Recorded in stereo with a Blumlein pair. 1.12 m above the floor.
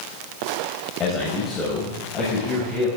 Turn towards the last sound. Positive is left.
turn(degrees=15)